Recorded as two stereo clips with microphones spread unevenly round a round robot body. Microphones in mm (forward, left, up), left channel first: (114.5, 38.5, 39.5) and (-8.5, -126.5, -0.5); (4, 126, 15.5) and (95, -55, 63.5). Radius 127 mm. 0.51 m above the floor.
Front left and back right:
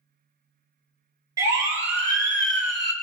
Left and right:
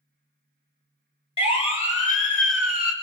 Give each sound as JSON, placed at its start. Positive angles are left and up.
{"t": 1.4, "sound": "a siren", "azimuth_deg": 170, "distance_m": 2.5}